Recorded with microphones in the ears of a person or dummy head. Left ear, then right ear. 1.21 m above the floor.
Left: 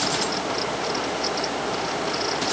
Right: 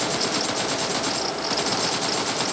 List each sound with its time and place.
Only background noise.